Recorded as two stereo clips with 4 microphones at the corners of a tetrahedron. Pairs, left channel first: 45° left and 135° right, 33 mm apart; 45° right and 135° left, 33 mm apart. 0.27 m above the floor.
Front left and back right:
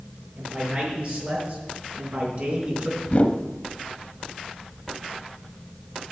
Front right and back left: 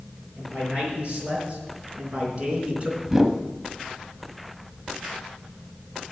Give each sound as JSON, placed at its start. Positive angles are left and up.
{"t": 0.4, "sound": "a man speaking", "azimuth_deg": -170, "distance_m": 5.5}
{"t": 3.1, "sound": "a whoosh", "azimuth_deg": 65, "distance_m": 0.7}